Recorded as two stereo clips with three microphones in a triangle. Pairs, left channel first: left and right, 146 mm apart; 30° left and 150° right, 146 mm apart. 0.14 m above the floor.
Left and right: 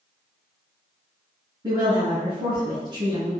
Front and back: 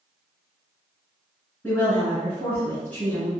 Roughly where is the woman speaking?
Ahead right.